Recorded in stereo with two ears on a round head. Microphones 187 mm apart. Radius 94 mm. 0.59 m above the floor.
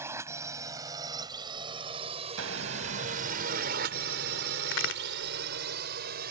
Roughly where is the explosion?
Right.